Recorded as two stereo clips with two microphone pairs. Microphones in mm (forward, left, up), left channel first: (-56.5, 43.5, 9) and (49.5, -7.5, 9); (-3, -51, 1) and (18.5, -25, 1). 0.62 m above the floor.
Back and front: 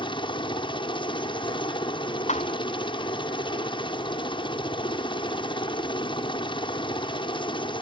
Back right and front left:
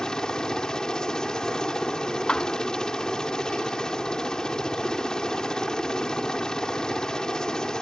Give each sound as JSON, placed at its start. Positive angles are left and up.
{"t": 0.0, "sound": "a helicopter", "azimuth_deg": 170}
{"t": 2.3, "sound": "a thud", "azimuth_deg": 165}